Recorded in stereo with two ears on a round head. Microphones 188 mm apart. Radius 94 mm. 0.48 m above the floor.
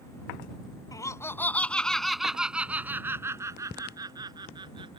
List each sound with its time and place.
0.9 s laughter: 15° left (ahead or behind); by 5.0 s 25° right (ahead or behind)